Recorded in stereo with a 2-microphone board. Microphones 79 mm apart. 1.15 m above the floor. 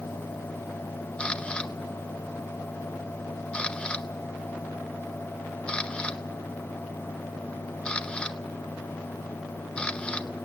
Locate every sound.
1.2 s a camera shutter: 15° left (ahead or behind), 0.6 m